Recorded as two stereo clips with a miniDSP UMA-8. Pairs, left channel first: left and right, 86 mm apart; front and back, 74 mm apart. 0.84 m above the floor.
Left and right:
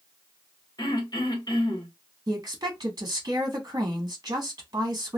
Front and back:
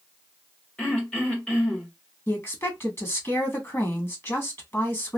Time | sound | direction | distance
0.8 | throat clearing | 75° left | 1.4 m
2.3 | a woman speaking | 50° right | 1.1 m